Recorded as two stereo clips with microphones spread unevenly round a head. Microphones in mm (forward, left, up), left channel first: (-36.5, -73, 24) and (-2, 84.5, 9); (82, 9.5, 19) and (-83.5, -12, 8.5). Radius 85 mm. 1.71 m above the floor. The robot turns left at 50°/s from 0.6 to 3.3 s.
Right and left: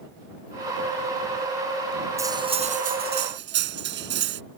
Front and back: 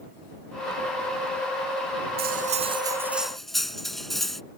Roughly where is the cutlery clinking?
Behind left.